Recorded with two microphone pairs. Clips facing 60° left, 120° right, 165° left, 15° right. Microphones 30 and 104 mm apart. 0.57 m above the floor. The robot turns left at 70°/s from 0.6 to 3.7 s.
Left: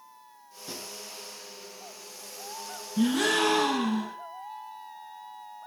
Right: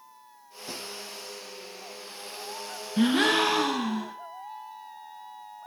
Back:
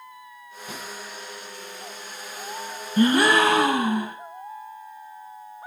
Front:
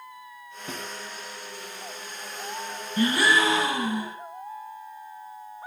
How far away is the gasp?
About 0.6 m.